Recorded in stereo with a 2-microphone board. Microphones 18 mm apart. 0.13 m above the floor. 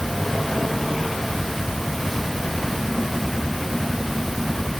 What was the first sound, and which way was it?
Only background noise.